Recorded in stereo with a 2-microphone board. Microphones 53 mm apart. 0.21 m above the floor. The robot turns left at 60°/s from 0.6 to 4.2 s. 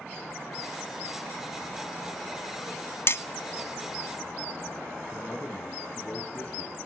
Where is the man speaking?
25° left (ahead or behind), 3.5 m.